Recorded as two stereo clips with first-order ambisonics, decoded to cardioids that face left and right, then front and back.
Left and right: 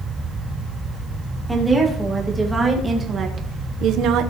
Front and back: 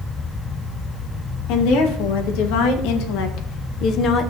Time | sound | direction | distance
1.5 | a woman speaking | 5° right | 2.5 m